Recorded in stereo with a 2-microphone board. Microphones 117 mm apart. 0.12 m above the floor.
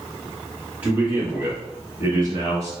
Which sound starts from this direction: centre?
A man speaking, at 0.8 s.